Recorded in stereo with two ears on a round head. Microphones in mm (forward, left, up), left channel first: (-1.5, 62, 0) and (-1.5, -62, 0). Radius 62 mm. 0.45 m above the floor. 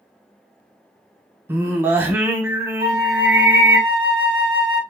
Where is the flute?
40° right (ahead or behind), 0.6 m.